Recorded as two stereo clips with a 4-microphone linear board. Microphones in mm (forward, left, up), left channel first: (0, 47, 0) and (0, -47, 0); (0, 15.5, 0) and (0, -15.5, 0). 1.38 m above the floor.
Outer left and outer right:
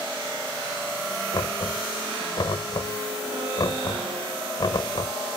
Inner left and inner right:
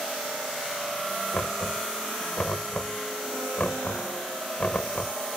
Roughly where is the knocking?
Left.